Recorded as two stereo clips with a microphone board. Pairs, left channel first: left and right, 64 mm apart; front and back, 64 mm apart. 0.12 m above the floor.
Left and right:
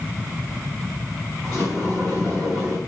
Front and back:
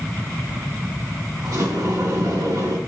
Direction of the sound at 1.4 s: Straight behind.